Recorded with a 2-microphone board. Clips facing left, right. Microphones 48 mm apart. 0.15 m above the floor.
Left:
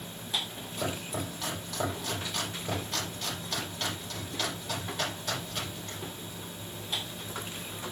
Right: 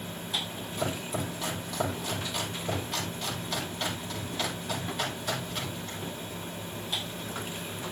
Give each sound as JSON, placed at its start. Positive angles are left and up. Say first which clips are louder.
{"t": 0.8, "sound": "chopping", "louder": "right 2 dB", "side_deg": 0, "distance_m": 6.5}